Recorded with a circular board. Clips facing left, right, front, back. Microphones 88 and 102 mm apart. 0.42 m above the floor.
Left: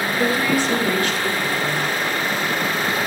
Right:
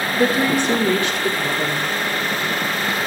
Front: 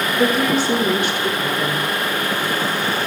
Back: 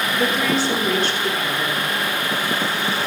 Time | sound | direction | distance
0.1 | a woman speaking | 55° right | 1.5 m